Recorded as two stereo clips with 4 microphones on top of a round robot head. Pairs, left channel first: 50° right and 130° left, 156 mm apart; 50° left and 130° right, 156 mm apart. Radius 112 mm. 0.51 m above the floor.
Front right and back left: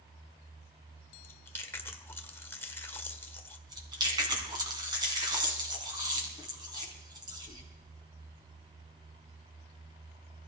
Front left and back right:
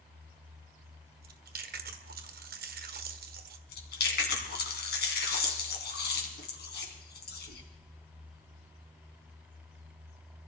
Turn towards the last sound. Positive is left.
turn(degrees=65)